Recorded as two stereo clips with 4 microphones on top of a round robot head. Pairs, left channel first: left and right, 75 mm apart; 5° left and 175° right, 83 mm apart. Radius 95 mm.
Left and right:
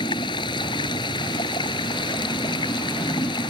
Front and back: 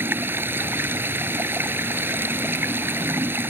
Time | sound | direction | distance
0.0 | running water | 125° left | ?